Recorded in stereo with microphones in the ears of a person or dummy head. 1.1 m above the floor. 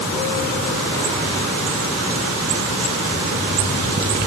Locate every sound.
Only background noise.